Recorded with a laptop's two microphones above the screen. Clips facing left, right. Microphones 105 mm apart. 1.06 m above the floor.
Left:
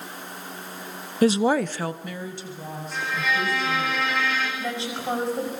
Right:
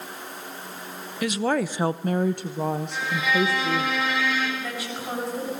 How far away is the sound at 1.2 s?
About 0.7 m.